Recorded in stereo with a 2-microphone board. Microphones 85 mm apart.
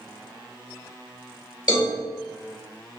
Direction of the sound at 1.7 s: 45° left (ahead or behind).